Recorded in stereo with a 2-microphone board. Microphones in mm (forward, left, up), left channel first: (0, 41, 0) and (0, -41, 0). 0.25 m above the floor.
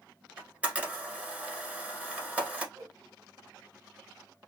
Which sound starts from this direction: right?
A whoosh, at 2.8 s.